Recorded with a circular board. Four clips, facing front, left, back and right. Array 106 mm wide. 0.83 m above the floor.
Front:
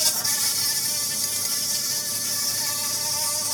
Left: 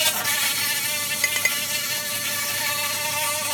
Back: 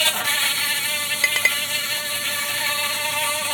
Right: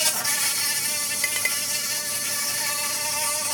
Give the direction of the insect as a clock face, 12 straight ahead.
7 o'clock.